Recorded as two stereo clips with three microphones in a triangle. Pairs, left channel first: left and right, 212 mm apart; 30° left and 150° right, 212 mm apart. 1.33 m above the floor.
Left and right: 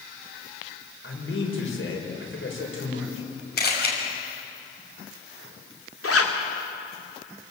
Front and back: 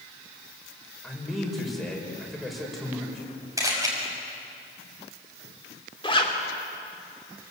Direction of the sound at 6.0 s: 95° left.